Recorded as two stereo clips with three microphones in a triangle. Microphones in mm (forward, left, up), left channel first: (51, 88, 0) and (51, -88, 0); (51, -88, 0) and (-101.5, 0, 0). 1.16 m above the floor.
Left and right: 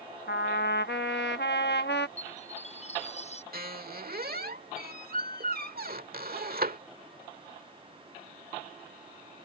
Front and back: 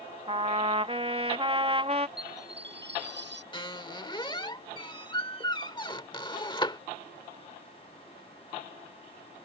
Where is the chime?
140° left.